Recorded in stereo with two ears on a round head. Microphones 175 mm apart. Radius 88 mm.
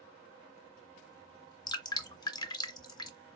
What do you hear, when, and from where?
1.7 s dripping: 20° left (ahead or behind), 0.5 m